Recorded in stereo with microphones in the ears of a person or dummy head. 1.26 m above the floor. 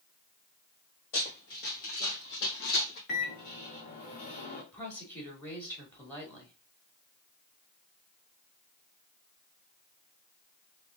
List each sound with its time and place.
1.1 s running footsteps: 45° left (ahead or behind), 1.9 m; by 3.0 s 55° left (ahead or behind), 2 m
3.1 s a microwave: 60° left (ahead or behind), 1.8 m
4.7 s a woman speaking: 15° left (ahead or behind), 2.5 m